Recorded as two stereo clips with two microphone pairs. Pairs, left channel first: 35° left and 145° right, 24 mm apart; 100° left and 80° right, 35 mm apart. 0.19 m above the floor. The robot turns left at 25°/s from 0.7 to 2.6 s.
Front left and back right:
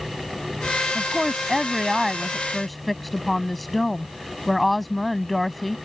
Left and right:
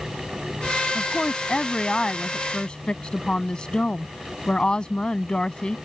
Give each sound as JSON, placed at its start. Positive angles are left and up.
{"t": 0.9, "sound": "a woman speaking", "azimuth_deg": 160}